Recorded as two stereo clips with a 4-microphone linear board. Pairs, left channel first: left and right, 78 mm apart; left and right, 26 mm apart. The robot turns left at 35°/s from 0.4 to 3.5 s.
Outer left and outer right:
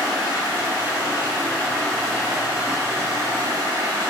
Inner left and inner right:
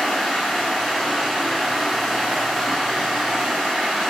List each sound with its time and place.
0.0 s running water: 60° left, 1.5 m; by 4.1 s 50° right, 1.5 m